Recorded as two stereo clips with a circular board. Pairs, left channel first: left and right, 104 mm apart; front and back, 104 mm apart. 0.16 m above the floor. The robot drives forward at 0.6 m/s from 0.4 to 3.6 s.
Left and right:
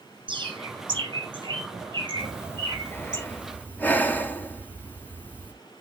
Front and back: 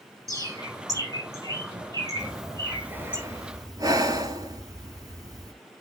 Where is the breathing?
65° left, 0.9 m; by 5.5 s 155° left, 1.1 m.